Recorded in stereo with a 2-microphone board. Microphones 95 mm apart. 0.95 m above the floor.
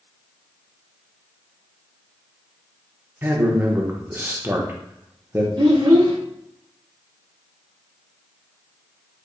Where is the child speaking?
50° right (ahead or behind), 0.8 m.